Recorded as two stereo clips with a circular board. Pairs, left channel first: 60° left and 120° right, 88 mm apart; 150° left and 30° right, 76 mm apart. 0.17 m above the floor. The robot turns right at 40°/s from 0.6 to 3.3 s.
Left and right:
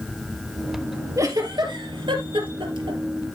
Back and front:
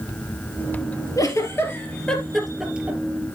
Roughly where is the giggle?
Behind.